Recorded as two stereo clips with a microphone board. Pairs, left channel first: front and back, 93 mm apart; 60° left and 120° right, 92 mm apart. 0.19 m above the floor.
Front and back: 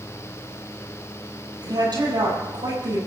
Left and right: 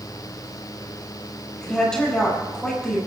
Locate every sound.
1.6 s a woman speaking: 145° left, 6.5 m